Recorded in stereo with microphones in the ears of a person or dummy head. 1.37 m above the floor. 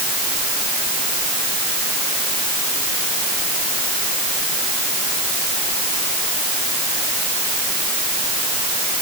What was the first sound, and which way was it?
Only background noise.